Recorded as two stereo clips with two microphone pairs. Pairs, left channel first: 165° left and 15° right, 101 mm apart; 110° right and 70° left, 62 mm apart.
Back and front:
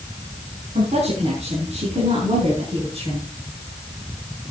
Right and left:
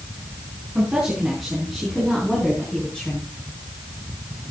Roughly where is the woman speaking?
Ahead.